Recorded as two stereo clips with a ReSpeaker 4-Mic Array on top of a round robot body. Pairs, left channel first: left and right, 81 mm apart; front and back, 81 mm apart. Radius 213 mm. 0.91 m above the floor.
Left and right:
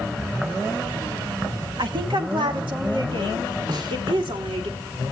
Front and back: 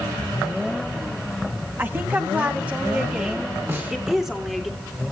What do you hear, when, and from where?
1.8 s a woman speaking: 115° right, 1.8 m; by 4.7 s 95° right, 3 m
3.7 s a snare drum: 120° right, 4.5 m